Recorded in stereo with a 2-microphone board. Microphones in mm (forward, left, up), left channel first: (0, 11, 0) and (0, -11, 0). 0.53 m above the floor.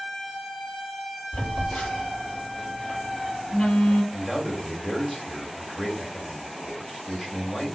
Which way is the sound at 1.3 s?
75° left (ahead or behind).